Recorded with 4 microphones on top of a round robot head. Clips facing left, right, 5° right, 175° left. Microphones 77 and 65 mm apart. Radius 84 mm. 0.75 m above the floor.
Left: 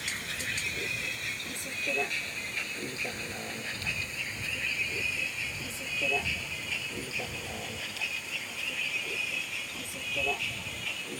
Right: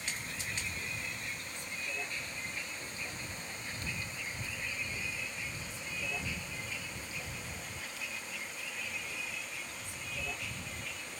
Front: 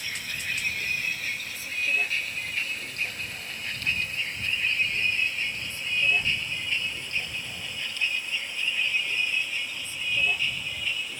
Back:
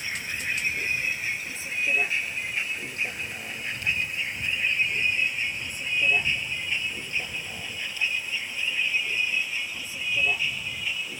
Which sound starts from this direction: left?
A vehicle, at 0.0 s.